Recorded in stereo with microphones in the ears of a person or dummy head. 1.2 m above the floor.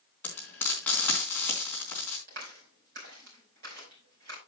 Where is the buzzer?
No buzzer in this recording.